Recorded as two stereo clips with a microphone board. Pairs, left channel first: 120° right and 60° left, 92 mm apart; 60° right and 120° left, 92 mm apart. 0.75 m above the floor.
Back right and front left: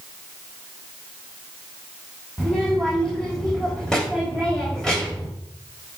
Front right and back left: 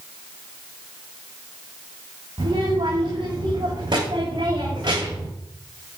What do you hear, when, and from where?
2.4 s a child speaking: 160° left, 3 m